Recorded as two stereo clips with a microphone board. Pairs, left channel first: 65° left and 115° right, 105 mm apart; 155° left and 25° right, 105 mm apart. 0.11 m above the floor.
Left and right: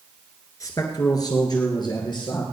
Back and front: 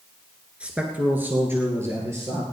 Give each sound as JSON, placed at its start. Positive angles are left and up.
{"t": 0.6, "sound": "a man speaking", "azimuth_deg": 50, "distance_m": 1.9}